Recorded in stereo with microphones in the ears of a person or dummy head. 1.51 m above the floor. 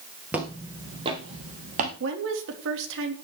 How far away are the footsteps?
About 2 m.